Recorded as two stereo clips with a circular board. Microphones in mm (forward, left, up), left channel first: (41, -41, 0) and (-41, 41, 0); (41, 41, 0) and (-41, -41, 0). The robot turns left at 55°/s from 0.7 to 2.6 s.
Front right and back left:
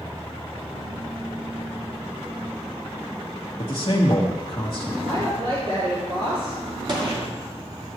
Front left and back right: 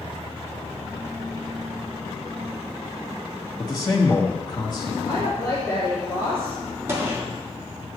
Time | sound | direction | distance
3.6 | a man speaking | 5° right | 1.5 m
5.0 | a woman speaking | 105° left | 4 m
6.9 | a gunshot | 165° left | 2.5 m